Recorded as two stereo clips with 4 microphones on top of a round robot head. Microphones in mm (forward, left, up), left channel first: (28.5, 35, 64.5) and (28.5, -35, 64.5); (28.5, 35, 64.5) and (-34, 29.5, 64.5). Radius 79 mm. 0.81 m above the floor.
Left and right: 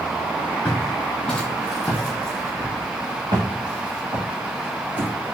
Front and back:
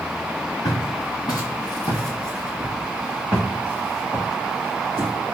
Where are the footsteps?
25° left, 1.5 m; by 5.1 s 120° right, 2.5 m.